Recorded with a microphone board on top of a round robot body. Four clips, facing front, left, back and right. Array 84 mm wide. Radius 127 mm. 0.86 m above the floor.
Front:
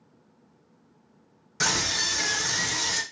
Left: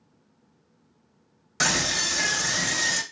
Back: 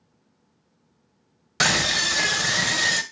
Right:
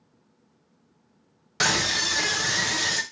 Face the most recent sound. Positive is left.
turn(degrees=-165)